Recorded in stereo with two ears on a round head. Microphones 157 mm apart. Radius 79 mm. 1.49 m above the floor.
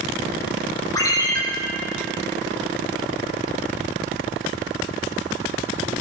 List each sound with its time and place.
0.9 s a ringtone: 20° left (ahead or behind), 2 m